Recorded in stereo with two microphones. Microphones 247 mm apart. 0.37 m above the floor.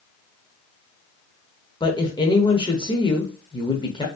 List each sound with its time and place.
1.8 s a woman speaking: 20° left (ahead or behind), 0.8 m